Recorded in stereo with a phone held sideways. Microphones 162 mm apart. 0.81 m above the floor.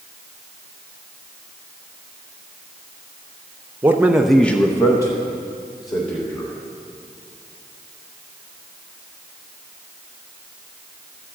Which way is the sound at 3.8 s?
15° right (ahead or behind).